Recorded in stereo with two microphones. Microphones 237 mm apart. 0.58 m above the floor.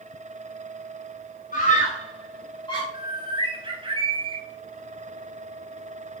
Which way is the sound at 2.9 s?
20° right (ahead or behind).